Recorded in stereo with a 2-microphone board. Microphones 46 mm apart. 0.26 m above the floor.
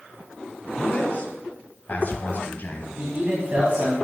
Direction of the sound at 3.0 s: 45° right (ahead or behind).